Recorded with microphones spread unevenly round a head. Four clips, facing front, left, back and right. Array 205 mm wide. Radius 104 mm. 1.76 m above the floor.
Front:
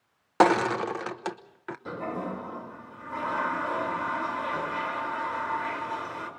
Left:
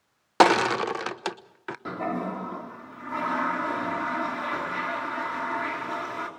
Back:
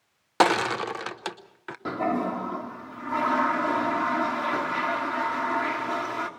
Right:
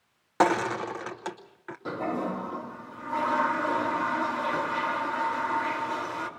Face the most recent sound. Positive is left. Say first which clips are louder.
# even, back 7 dB
turn(degrees=170)